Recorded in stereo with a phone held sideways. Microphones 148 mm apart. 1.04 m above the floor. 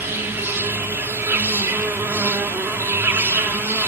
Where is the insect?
15° right (ahead or behind), 1.0 m.